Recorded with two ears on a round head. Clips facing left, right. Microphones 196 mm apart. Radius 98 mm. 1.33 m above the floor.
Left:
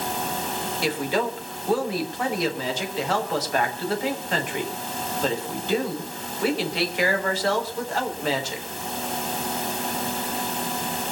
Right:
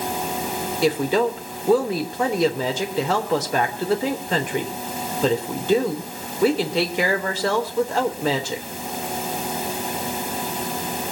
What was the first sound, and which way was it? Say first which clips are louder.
A woman speaking: right 6 dB; 85° right.